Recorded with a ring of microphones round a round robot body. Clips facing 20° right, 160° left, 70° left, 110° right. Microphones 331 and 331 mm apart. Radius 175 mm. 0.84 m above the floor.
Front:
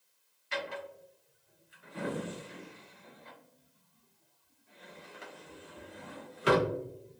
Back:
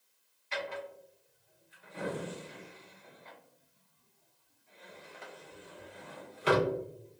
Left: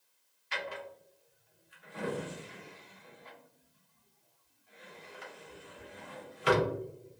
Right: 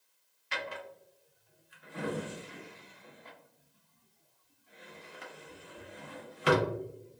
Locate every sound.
0.5 s a drawer: 95° right, 0.9 m